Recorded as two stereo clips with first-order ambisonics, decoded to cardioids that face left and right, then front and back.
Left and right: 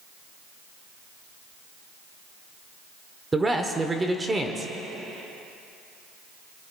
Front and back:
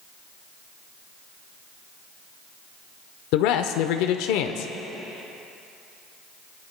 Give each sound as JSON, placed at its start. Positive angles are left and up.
{"t": 3.3, "sound": "a man speaking", "azimuth_deg": -10, "distance_m": 0.8}